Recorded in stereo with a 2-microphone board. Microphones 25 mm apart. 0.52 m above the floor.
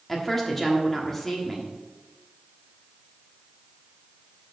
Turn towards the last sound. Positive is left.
turn(degrees=15)  # may be behind; listen again after turning